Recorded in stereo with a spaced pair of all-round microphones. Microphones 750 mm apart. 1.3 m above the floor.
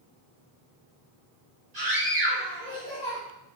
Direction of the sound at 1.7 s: 60° right (ahead or behind).